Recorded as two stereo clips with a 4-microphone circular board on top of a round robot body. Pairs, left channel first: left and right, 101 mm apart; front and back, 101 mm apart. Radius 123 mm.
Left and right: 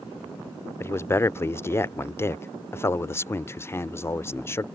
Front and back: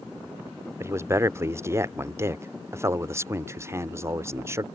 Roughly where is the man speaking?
Behind left.